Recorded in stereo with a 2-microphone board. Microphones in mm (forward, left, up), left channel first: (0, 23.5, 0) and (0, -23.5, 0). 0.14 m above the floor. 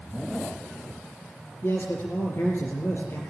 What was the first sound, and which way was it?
A man speaking, 65° left (ahead or behind).